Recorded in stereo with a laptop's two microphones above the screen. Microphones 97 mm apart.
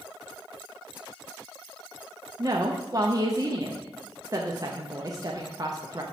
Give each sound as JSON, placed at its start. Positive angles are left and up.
{"t": 2.4, "sound": "a woman speaking", "side_deg": -40, "distance_m": 0.7}